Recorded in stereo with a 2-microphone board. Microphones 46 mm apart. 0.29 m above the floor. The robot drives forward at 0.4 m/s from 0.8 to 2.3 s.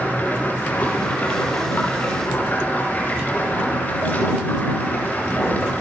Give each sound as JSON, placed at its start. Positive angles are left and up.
{"t": 0.0, "sound": "running water", "side_deg": 40, "distance_m": 6.5}